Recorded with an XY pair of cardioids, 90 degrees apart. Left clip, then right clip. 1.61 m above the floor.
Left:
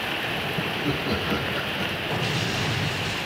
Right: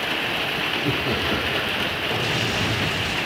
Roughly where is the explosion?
Ahead.